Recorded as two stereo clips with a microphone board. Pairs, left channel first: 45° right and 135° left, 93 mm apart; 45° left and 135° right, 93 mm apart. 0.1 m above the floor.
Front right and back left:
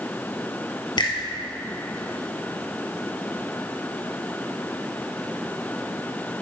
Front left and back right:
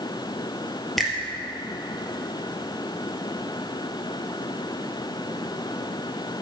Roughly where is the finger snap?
Ahead right.